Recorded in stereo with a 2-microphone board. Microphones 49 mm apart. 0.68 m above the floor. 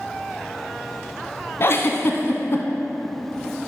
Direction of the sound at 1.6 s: 55° left (ahead or behind).